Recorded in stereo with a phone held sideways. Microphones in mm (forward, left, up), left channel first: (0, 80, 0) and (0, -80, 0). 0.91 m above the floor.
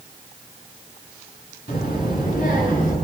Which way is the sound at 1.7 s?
65° left (ahead or behind).